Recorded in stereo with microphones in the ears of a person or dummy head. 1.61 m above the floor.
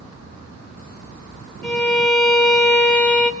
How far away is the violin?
About 0.9 m.